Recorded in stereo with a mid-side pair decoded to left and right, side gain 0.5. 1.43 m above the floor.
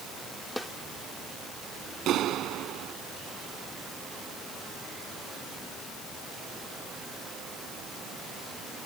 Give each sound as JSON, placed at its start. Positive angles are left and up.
{"t": 0.6, "sound": "a snare drum", "azimuth_deg": 5}
{"t": 2.1, "sound": "a clap", "azimuth_deg": -65}